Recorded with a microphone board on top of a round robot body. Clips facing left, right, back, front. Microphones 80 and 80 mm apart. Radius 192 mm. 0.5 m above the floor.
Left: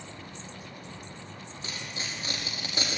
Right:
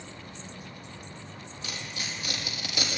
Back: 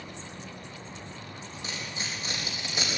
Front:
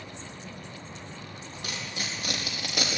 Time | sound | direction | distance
1.6 | tearing paper | 30° left | 4.5 m